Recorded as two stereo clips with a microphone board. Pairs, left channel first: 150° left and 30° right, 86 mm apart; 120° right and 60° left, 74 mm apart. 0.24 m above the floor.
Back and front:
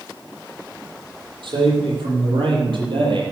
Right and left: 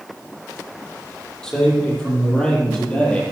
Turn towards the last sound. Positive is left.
turn(degrees=-45)